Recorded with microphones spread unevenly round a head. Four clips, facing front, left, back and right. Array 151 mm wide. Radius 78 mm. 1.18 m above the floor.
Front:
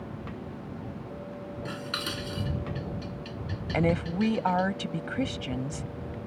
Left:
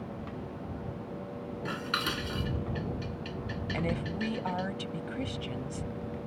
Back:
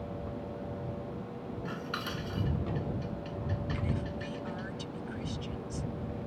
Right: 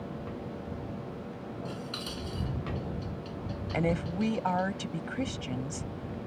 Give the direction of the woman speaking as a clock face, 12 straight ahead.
1 o'clock.